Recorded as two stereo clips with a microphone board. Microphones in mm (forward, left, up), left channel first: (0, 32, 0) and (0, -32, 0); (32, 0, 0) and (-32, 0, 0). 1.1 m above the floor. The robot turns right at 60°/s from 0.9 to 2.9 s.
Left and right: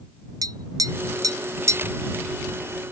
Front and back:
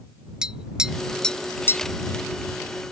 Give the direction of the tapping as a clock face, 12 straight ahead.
3 o'clock.